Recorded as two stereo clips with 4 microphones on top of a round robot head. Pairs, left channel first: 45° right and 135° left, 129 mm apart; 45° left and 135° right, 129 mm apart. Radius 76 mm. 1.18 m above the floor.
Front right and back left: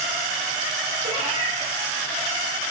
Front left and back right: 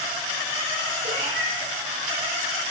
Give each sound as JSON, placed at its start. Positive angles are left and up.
{"t": 1.0, "sound": "a cat meowing", "azimuth_deg": -175, "distance_m": 5.0}